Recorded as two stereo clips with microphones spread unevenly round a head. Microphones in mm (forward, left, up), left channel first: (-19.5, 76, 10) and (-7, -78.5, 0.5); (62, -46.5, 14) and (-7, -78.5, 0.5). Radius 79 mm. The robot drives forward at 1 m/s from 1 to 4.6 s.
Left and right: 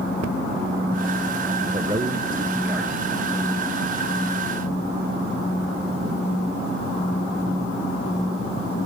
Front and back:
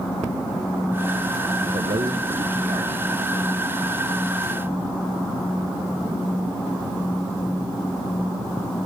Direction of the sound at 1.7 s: 135° right.